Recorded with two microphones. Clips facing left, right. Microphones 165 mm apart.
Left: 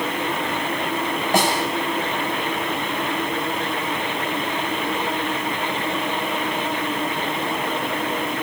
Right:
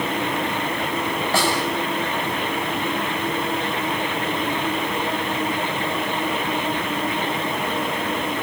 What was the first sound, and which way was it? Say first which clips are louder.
A snare drum: left 3 dB; 15° left (ahead or behind).